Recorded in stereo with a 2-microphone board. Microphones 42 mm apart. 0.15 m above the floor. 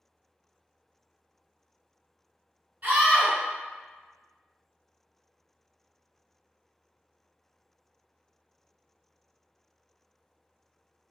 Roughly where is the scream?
Right.